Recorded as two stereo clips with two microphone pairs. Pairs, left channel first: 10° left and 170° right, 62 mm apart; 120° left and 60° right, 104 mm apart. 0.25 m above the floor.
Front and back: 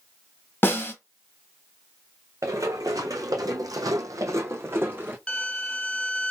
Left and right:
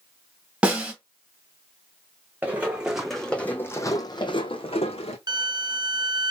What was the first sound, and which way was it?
A snare drum, 10° left.